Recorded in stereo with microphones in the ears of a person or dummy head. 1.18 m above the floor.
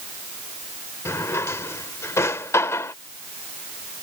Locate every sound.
1.1 s a drawer: 10° left (ahead or behind)